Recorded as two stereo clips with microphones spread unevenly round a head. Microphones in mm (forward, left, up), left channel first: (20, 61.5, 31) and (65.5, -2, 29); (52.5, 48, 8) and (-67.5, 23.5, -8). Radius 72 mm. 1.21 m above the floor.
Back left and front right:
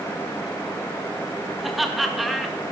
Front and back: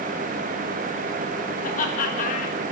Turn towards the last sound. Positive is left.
turn(degrees=35)